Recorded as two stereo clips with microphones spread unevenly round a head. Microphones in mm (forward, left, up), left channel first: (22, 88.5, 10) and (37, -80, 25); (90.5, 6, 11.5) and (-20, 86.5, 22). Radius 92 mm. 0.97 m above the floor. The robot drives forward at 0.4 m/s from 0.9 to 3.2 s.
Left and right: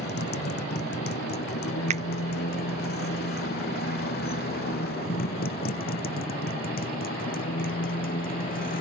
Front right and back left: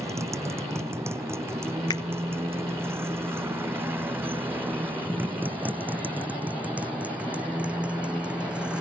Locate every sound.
0.0 s a motorcycle: 75° left; by 8.8 s 60° left
1.9 s a finger snap: 65° right; by 2.0 s 70° right